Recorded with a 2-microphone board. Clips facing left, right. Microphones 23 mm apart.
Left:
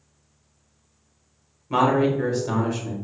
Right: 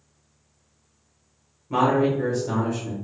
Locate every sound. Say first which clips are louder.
1.7 s a man speaking: left 1 dB; 35° left (ahead or behind), 1.0 m